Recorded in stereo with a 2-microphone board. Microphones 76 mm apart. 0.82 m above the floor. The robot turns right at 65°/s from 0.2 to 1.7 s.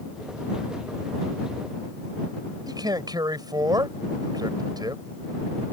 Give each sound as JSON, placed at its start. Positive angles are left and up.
{"t": 2.7, "sound": "a man speaking", "side_deg": -65}